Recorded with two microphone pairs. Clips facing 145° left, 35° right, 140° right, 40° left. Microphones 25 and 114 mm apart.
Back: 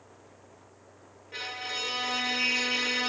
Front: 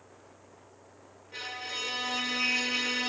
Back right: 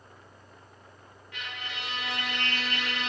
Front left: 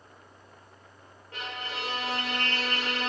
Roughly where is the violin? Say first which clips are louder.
Back 2 dB, front left 4 dB; left.